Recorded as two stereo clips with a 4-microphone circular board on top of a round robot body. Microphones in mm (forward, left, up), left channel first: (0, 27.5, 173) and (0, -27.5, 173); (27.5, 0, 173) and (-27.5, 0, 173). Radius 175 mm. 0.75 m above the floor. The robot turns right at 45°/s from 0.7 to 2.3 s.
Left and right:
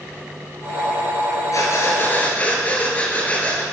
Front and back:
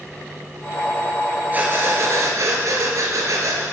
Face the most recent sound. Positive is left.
turn(degrees=155)